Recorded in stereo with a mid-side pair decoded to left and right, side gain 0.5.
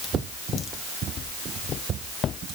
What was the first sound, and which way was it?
Only background noise.